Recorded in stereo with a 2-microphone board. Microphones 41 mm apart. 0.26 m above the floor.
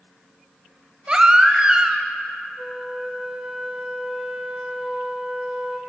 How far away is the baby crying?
About 0.5 m.